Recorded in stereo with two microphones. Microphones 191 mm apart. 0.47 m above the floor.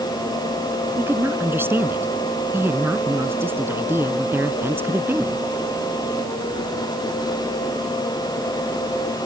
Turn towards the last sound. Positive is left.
turn(degrees=-10)  # may be behind; listen again after turning